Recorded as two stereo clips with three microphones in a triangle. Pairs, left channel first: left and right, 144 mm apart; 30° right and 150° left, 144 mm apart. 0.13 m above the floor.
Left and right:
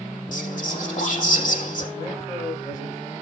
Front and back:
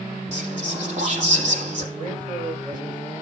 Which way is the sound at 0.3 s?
110° left.